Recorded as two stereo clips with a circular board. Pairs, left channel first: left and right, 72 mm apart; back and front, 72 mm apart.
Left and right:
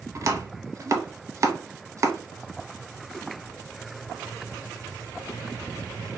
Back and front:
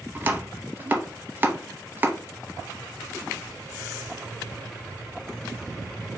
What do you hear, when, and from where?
0.1 s chopping: 60° right, 0.6 m